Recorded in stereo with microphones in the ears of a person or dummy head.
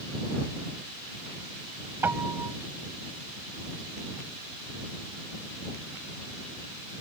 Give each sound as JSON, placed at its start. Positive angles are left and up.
{"t": 2.0, "sound": "a piano", "side_deg": -10}